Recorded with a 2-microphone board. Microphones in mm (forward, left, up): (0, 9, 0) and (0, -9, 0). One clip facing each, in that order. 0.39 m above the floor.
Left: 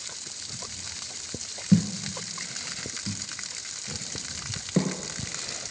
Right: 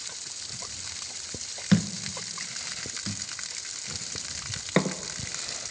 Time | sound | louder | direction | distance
1.7 | a thud | left 2 dB | 60° right (ahead or behind) | 0.7 m